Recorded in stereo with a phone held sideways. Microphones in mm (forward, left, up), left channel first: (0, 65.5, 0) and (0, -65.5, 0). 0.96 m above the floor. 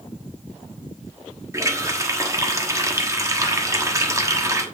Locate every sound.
1.5 s a running tap: 25° right (ahead or behind), 1.2 m